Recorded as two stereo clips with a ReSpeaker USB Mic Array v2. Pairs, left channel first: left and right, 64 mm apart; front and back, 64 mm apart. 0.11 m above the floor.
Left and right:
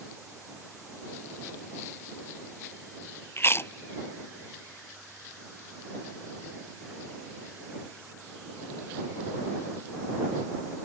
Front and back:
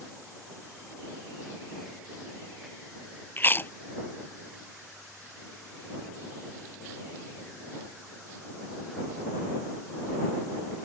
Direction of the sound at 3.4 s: 50° left.